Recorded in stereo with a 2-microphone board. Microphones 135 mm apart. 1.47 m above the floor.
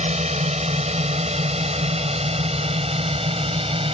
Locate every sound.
0.0 s a drone: 55° right (ahead or behind); by 3.9 s 45° right (ahead or behind)